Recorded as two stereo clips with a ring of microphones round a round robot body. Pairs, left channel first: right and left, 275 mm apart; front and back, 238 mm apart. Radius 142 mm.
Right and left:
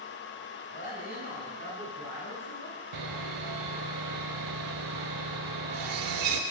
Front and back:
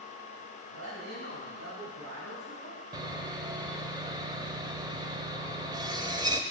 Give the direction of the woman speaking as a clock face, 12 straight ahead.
5 o'clock.